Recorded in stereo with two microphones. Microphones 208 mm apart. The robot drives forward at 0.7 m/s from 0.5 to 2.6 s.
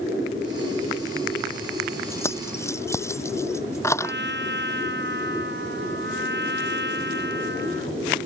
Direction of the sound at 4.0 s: 60° right (ahead or behind).